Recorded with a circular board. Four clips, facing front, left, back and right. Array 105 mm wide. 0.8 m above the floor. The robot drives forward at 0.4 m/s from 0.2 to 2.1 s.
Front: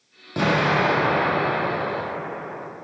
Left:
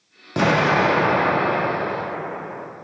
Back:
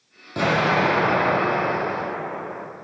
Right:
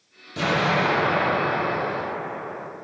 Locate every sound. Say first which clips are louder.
0.4 s an explosion: left 5 dB, even; 85° left, 1.0 m; by 2.6 s 125° left, 1.2 m